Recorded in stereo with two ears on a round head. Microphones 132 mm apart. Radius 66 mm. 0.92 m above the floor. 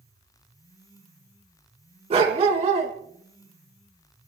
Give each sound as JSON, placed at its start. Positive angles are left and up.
{"t": 2.1, "sound": "a dog barking", "side_deg": -40, "distance_m": 3.0}